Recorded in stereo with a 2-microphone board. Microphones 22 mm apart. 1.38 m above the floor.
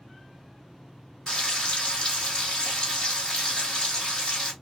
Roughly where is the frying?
Left.